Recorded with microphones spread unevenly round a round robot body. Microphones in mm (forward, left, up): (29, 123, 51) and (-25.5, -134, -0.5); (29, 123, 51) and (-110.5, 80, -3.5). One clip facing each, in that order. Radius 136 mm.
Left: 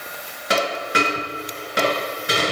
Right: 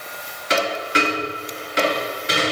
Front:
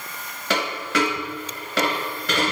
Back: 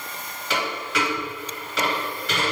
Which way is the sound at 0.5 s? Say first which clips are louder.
Right 1 dB, front 3 dB; 35° left.